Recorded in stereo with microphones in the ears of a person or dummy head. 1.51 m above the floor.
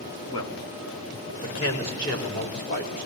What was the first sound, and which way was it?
A man speaking, 30° left (ahead or behind).